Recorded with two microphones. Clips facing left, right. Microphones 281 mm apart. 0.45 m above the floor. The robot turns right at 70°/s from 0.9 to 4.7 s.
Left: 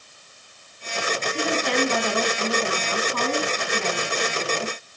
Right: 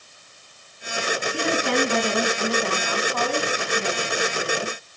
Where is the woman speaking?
80° right, 4.5 m; by 4.8 s 155° left, 4.5 m.